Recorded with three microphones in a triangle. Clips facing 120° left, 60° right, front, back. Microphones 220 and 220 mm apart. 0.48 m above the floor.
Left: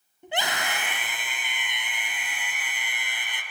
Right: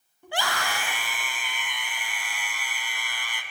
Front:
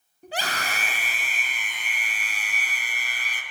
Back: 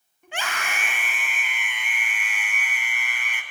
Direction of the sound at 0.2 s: 50° left.